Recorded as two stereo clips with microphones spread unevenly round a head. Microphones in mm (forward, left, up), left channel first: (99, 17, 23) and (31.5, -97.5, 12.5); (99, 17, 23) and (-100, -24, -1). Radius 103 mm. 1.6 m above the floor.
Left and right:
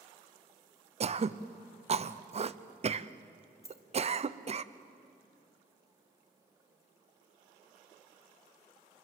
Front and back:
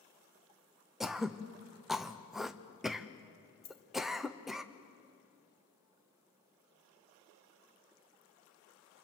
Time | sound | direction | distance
1.0 | throat clearing | 80° right | 0.8 m
3.6 | a dropped coin | 5° left | 2.0 m